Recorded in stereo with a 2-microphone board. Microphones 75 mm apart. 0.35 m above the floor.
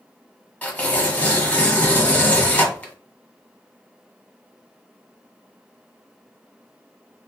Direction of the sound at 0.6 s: 20° left (ahead or behind).